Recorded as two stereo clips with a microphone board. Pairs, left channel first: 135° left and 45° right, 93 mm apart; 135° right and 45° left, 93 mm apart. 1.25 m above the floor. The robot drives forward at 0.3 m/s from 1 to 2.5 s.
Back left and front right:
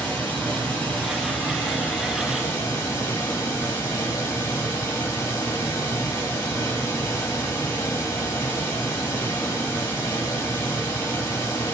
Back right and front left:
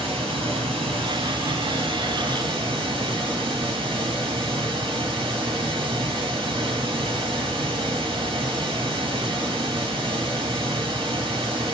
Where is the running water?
55° left, 1.5 m; by 11.7 s 75° left, 1.3 m.